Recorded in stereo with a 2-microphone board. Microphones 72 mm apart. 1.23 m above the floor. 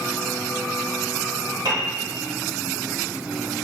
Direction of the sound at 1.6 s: 75° right (ahead or behind).